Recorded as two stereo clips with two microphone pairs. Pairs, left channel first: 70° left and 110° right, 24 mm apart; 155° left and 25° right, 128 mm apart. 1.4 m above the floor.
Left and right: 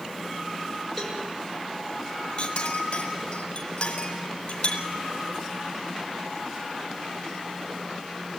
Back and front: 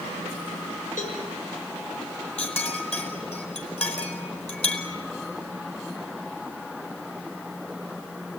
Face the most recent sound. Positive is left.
turn(degrees=115)